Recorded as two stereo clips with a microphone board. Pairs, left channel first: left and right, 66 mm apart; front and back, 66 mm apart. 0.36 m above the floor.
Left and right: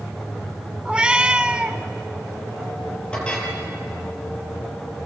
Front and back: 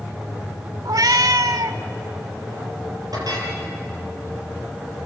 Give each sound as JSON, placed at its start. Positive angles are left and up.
{"t": 0.8, "sound": "a cat meowing", "azimuth_deg": -165, "distance_m": 0.8}
{"t": 3.1, "sound": "a clink", "azimuth_deg": 165, "distance_m": 6.0}